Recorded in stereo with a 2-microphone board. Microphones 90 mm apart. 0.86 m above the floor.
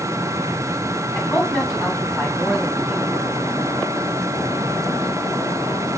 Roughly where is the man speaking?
Centre.